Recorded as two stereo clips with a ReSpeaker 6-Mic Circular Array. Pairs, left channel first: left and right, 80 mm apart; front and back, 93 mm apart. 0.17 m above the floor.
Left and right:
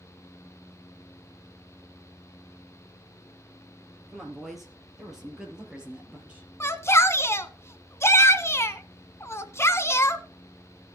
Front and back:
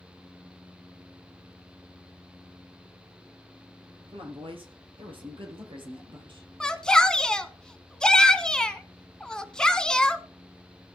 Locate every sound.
4.1 s a woman speaking: straight behind, 5 m; by 6.5 s 165° right, 4.5 m
6.6 s a shout: 75° left, 1.2 m